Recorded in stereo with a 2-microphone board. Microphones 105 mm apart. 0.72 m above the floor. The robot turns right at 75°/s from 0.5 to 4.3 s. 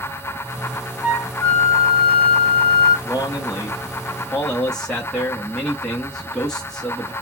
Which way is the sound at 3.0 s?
75° left.